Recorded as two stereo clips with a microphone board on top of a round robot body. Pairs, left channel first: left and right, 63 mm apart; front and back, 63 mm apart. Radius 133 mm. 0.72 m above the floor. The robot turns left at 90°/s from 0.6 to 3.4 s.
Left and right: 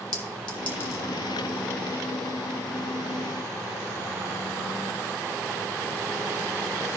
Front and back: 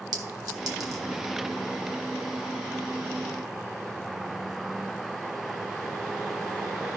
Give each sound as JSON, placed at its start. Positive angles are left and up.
{"t": 0.1, "sound": "a clink", "azimuth_deg": 165, "distance_m": 1.3}